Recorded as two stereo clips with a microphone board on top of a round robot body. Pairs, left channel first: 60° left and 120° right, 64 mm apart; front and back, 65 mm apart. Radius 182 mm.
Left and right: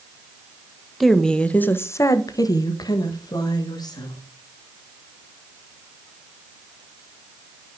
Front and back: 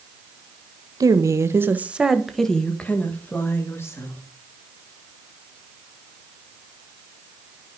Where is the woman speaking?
150° left, 1.3 m; by 4.2 s 50° left, 2.5 m.